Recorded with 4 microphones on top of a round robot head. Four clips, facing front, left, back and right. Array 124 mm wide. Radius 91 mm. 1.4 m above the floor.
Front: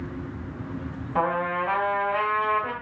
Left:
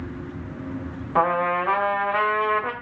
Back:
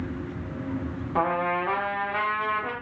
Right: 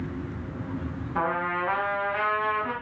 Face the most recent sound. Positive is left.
turn(degrees=100)